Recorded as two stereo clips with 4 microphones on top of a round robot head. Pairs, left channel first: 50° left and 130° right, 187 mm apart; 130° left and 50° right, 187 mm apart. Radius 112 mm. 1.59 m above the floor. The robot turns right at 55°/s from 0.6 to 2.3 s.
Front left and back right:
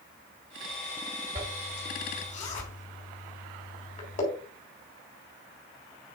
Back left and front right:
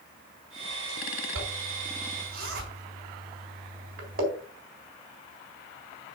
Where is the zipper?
60° right, 3.5 m; by 4.2 s 5° right, 3.5 m.